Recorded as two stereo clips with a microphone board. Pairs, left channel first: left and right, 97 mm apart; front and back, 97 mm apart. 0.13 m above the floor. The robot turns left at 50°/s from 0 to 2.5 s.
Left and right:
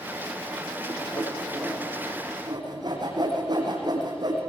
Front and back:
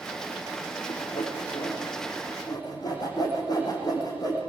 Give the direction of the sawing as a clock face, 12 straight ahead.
11 o'clock.